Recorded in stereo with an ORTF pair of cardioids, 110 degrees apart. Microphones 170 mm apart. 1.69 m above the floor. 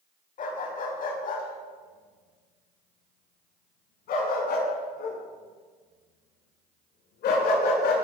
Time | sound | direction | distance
0.4 | a dog barking | 50° left | 5 m